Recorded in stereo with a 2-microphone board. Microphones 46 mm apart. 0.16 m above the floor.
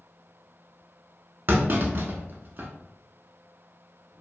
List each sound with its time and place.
1.5 s a clunk: 50° right (ahead or behind), 0.5 m